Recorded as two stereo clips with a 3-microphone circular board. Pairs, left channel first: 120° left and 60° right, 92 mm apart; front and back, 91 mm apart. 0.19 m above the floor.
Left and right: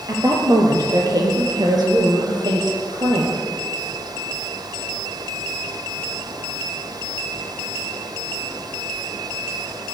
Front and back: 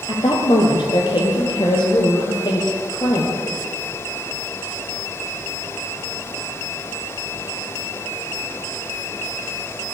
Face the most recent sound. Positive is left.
turn(degrees=-35)